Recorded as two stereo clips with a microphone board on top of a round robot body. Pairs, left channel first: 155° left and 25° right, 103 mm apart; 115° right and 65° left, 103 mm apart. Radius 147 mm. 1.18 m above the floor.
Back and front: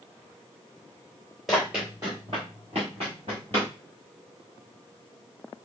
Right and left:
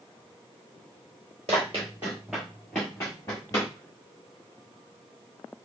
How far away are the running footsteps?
About 1.2 m.